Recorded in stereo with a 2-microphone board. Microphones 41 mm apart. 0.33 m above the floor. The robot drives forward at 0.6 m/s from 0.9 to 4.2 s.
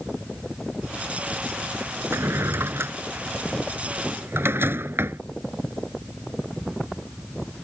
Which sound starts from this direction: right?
A drawer, at 2.1 s.